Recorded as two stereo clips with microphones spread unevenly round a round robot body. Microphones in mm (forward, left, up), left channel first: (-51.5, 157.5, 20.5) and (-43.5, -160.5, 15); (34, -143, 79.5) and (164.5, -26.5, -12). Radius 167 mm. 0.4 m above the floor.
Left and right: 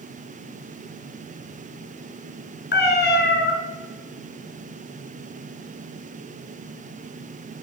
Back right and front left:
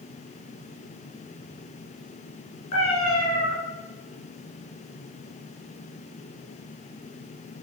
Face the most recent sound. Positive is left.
turn(degrees=150)